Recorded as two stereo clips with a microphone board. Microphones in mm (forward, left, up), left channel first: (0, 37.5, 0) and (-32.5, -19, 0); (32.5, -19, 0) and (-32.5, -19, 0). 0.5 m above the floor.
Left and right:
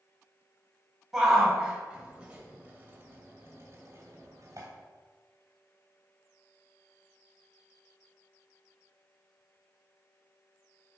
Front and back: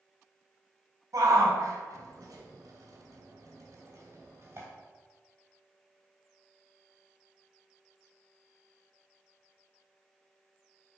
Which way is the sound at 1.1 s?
155° left.